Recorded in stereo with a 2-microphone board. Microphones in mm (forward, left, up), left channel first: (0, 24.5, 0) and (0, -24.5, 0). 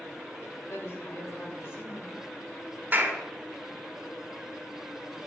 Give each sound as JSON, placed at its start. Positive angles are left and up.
{"t": 0.7, "sound": "a woman speaking", "side_deg": 60, "distance_m": 1.6}
{"t": 2.9, "sound": "a clap", "side_deg": -35, "distance_m": 1.4}